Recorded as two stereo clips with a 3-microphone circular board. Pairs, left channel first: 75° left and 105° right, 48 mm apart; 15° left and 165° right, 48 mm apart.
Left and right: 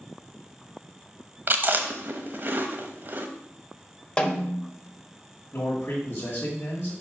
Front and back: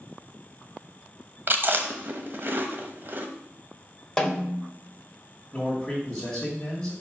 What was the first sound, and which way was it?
Chewing, 135° right.